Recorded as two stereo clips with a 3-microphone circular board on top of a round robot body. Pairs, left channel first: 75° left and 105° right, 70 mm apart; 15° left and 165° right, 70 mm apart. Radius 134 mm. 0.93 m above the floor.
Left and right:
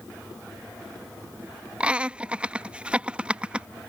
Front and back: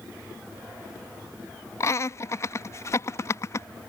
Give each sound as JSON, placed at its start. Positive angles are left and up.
{"t": 1.8, "sound": "laughter", "azimuth_deg": -30}